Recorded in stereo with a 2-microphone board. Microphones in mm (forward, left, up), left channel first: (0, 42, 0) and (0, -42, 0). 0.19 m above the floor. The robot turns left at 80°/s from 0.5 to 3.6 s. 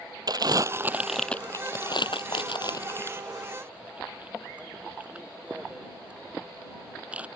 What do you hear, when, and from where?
0.3 s crumpling: 50° right (ahead or behind); by 7.3 s 15° right (ahead or behind)